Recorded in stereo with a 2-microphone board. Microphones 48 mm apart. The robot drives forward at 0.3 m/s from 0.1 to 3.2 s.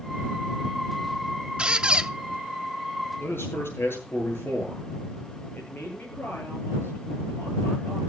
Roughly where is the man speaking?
Left.